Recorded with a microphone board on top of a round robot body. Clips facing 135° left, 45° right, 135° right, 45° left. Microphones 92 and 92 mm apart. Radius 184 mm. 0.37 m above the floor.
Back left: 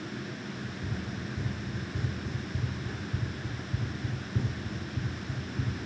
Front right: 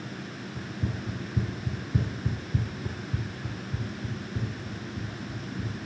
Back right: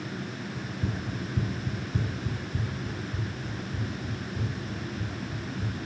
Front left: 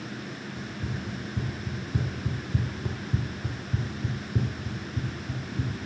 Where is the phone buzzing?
I don't hear a phone buzzing.